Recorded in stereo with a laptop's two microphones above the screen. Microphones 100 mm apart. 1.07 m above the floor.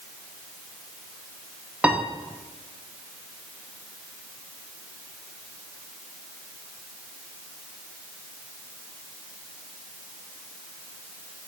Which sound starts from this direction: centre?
A piano, at 1.8 s.